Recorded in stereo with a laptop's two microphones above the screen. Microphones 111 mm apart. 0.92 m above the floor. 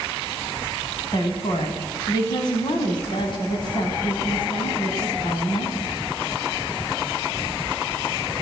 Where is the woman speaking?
50° left (ahead or behind), 6.5 m.